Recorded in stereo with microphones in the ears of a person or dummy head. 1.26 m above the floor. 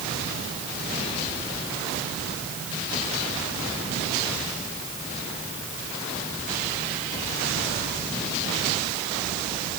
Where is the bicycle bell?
I don't hear a bicycle bell.